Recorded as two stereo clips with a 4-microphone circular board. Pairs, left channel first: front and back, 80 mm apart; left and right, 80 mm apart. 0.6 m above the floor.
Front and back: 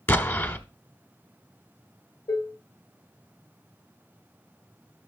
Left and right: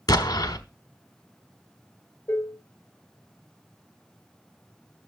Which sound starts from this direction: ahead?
Dishes clattering, at 2.3 s.